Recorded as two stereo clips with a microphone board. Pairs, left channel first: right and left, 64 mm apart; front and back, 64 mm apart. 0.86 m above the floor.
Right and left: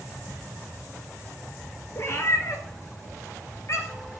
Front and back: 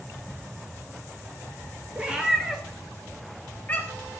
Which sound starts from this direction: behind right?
A cat meowing, at 1.9 s.